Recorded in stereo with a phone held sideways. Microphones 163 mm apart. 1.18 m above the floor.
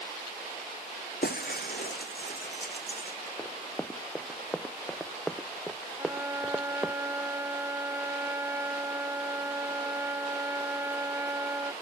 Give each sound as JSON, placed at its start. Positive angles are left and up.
{"t": 1.2, "sound": "breaking glass", "side_deg": 70}
{"t": 3.4, "sound": "running footsteps", "side_deg": 10}
{"t": 6.0, "sound": "a trumpet", "side_deg": -15}